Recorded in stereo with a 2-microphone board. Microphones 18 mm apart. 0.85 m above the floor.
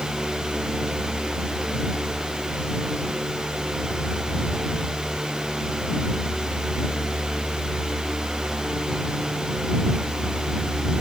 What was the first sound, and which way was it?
Only background noise.